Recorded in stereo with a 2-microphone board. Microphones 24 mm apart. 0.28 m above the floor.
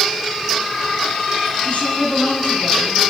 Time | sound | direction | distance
1.6 | a woman speaking | 60° left (ahead or behind) | 3 m